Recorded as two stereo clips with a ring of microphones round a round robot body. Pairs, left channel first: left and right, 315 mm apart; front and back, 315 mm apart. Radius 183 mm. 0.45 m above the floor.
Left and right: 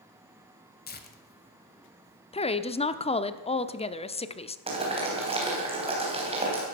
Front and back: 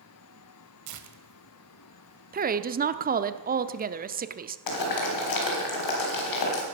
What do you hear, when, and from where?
0.9 s tearing paper: 150° left, 1.5 m
2.3 s a woman speaking: 145° left, 0.9 m
4.7 s boiling: 15° right, 3.5 m